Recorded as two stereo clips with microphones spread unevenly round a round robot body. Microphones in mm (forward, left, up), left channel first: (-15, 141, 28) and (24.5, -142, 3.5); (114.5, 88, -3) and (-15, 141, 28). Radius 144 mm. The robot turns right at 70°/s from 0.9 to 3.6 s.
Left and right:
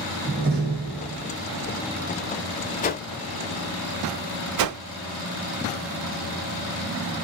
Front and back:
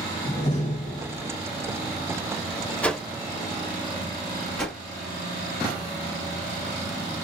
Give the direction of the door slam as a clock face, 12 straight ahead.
1 o'clock.